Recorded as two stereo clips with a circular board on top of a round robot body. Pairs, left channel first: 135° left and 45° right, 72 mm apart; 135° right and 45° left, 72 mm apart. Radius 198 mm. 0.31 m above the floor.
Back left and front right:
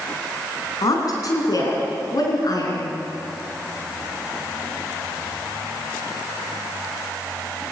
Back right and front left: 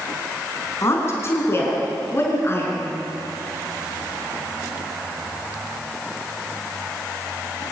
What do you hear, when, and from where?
0.8 s a woman speaking: 175° left, 4.5 m; by 2.9 s 170° left, 5.5 m